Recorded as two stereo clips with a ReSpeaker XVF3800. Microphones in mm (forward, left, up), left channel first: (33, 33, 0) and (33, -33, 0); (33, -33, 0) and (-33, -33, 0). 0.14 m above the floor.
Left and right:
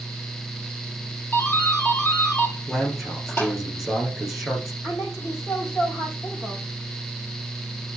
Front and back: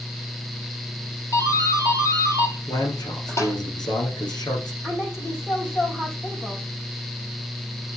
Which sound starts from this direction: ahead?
A man speaking, at 2.7 s.